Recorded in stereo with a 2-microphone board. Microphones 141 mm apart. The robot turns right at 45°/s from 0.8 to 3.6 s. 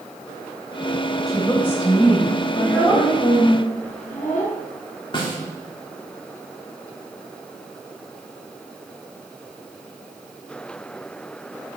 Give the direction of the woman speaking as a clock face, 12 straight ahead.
12 o'clock.